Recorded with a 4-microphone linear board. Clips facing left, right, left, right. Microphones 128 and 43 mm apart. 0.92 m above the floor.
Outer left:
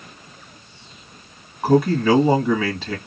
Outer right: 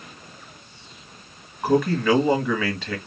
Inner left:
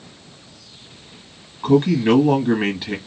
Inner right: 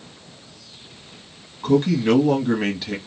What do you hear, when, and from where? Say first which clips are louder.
1.6 s a man speaking: outer left 3 dB, inner left 2 dB; 15° left (ahead or behind), 0.9 m